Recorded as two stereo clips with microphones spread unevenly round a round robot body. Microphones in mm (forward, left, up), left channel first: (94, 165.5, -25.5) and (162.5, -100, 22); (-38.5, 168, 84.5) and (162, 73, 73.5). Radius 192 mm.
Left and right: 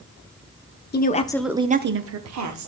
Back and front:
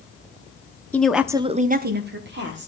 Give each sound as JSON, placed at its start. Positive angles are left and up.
{"t": 0.9, "sound": "a woman speaking", "azimuth_deg": 70, "distance_m": 1.1}